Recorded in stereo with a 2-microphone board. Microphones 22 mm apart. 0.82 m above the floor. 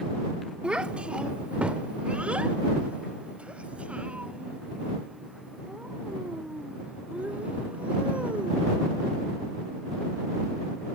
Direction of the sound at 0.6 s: 60° right (ahead or behind).